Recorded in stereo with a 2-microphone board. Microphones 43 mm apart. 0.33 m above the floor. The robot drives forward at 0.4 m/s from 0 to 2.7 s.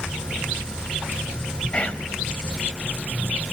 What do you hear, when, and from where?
1.7 s whispering: 25° left (ahead or behind), 1.6 m